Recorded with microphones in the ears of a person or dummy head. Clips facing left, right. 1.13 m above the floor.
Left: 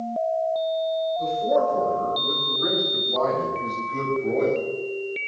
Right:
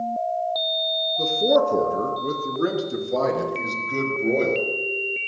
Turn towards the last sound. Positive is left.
turn(degrees=-70)  # may be behind; listen again after turning